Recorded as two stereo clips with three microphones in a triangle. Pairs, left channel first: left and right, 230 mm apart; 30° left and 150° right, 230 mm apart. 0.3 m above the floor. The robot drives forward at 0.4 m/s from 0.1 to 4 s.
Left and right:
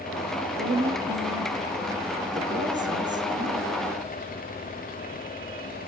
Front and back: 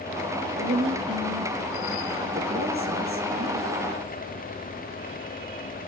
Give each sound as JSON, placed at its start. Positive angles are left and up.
{"t": 0.6, "sound": "a woman speaking", "azimuth_deg": -120, "distance_m": 6.0}